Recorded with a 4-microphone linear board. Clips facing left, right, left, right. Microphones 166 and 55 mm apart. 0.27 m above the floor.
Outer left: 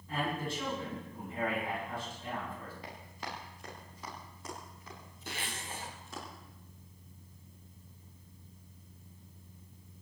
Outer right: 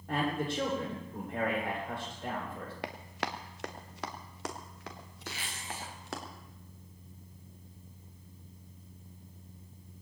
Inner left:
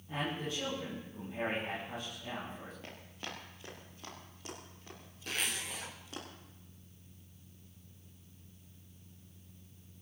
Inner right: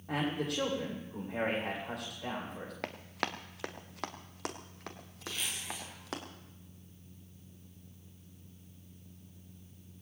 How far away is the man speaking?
About 10 m.